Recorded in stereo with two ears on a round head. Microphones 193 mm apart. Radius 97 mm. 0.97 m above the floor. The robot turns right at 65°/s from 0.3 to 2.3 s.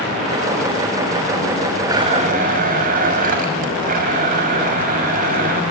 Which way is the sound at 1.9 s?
15° right (ahead or behind).